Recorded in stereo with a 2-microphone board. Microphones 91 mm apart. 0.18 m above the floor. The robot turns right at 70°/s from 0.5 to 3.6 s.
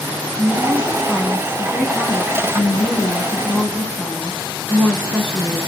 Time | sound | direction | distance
0.4 | a woman speaking | 45° right | 1.2 m